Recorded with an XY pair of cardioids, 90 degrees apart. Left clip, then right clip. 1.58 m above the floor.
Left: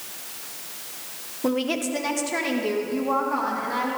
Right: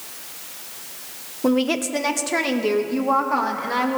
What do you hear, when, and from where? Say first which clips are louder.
1.4 s a woman speaking: right 4 dB; 25° right, 1.0 m; by 4.0 s 50° right, 2.5 m